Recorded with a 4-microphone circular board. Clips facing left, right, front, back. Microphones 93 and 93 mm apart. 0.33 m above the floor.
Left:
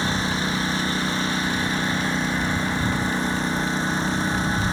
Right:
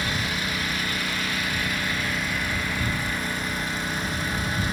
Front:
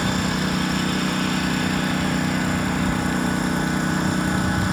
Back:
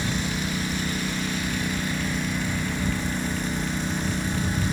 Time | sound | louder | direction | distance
0.0 | a lawn mower | left 4 dB, front 5 dB | 30° left | ?